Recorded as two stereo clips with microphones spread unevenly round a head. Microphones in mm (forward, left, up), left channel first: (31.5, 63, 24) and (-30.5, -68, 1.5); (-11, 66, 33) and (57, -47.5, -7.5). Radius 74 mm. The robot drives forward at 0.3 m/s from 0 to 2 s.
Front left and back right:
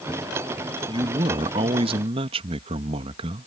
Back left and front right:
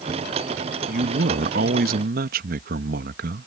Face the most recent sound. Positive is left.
turn(degrees=-60)